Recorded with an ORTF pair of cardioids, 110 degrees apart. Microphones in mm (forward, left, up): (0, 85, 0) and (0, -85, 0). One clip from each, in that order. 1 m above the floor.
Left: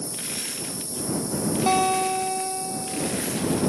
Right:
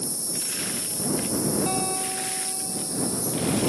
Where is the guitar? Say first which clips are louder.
Left 7 dB; 50° left.